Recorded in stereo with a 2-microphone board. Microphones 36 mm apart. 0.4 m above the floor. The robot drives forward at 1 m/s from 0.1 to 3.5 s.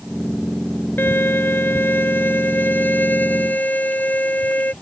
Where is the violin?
80° left; by 4.7 s 55° left (ahead or behind).